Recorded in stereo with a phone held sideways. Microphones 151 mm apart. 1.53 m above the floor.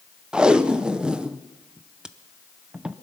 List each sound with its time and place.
0.3 s tape being pulled: 5° right (ahead or behind), 0.6 m